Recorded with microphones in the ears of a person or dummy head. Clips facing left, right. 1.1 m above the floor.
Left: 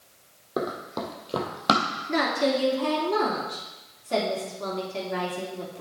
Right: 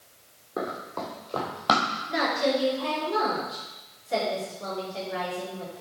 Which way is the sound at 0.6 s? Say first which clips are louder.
Left 3 dB; 55° left (ahead or behind).